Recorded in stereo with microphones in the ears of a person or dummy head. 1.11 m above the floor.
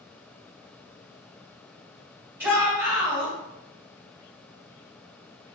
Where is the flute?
No flute in this recording.